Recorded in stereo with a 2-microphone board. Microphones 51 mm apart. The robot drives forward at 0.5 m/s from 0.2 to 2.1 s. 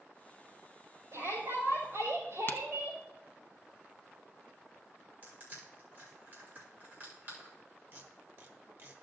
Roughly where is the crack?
Left.